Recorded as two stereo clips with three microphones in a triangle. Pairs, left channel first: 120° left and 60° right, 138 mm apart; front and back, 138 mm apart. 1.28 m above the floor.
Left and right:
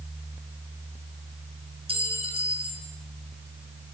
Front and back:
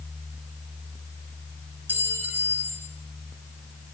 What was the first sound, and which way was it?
A clink, 105° right.